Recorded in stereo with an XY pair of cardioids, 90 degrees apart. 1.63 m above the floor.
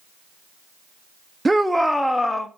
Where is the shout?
20° right, 0.7 m; by 2.5 s 25° left, 1.3 m.